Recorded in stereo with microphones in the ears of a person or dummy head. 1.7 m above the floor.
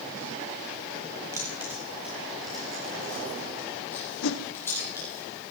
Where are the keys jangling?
10° right (ahead or behind), 2.5 m; by 5.2 s 15° left (ahead or behind), 5 m.